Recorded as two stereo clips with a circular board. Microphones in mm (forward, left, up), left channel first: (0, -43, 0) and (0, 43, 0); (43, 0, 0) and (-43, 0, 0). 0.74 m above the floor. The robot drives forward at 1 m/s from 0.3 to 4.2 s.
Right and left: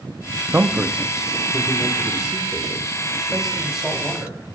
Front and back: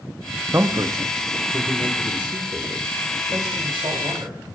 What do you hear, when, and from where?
0.5 s a man speaking: 145° left, 0.8 m; by 4.4 s 175° left, 4 m